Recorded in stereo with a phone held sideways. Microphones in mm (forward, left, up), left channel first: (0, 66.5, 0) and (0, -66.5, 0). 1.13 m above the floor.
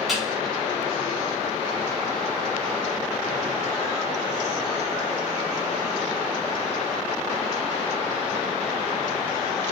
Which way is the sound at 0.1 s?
Centre (ahead or behind).